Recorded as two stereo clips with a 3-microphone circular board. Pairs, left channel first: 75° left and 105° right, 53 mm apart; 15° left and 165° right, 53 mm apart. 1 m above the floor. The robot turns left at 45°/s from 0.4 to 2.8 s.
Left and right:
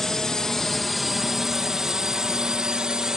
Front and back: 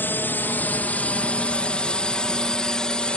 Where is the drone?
5° right; by 3.2 s 35° right.